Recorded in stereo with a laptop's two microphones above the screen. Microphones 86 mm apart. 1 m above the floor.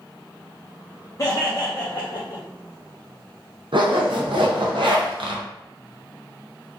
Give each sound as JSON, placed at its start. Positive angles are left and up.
{"t": 1.2, "sound": "laughter", "side_deg": 40, "distance_m": 0.6}
{"t": 3.7, "sound": "a zipper", "side_deg": -70, "distance_m": 0.5}